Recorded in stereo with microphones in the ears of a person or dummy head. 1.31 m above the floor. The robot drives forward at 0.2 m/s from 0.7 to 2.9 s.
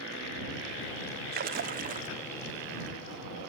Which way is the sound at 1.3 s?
45° right (ahead or behind).